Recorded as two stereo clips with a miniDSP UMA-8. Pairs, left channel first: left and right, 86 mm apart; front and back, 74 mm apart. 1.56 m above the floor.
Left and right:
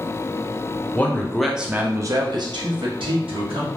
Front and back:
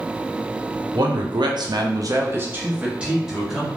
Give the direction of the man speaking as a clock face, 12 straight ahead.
7 o'clock.